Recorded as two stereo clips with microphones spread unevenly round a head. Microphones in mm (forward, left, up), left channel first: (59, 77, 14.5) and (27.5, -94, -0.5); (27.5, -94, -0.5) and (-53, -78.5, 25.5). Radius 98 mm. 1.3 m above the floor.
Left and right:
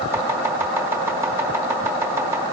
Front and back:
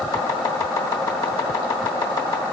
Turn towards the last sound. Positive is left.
turn(degrees=-25)